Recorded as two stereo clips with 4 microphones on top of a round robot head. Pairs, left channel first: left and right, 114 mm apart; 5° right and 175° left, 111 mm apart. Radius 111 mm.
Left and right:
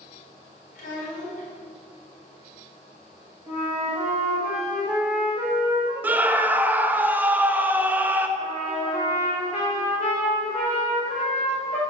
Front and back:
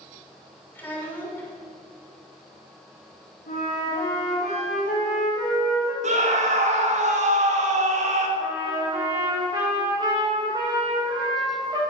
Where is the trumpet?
120° left, 4 m.